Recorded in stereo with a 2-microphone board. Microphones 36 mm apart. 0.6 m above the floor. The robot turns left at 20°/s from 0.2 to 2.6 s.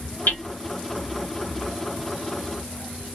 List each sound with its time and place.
0.3 s hammering: 60° left (ahead or behind), 1.8 m; by 0.4 s 55° left (ahead or behind), 1.8 m